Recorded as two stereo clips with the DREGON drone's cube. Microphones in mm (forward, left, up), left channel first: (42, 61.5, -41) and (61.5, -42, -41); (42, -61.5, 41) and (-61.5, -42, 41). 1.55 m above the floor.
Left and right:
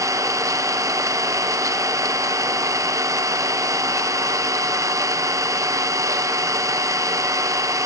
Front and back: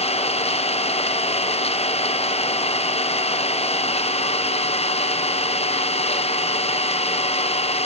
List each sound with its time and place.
0.0 s an engine running: 20° right, 0.8 m